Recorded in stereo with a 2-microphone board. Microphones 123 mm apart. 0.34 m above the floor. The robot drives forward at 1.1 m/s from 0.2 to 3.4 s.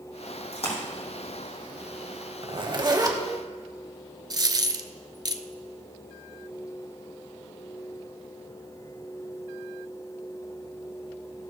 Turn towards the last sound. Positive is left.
turn(degrees=-35)  # may be behind; listen again after turning